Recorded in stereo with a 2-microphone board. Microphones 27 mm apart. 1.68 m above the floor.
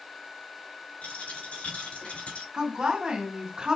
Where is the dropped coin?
65° left (ahead or behind), 4 m.